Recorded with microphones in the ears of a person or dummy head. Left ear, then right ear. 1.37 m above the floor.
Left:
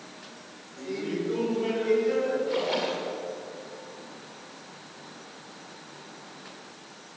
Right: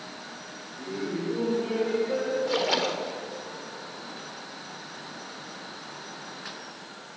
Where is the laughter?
45° left (ahead or behind), 4.5 m; by 2.4 s 70° left (ahead or behind), 4 m.